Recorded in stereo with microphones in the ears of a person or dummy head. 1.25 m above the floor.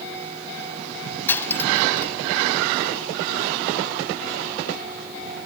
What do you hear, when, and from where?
1.3 s cutlery clinking: 10° left (ahead or behind)